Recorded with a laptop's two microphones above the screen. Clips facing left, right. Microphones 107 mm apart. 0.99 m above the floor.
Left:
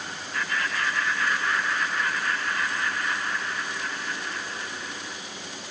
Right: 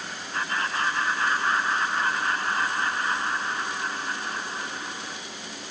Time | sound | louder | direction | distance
0.3 | laughter | right 1 dB | 30° right (ahead or behind) | 0.5 m